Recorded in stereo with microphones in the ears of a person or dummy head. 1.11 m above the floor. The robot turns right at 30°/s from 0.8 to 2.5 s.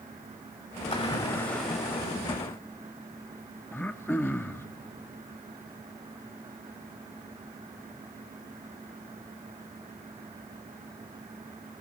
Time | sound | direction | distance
0.9 | a splash | 155° left | 3 m
3.7 | throat clearing | 10° left (ahead or behind) | 0.7 m